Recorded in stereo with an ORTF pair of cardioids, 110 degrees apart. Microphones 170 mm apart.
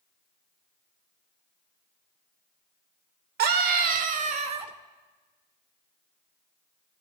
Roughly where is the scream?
Ahead right.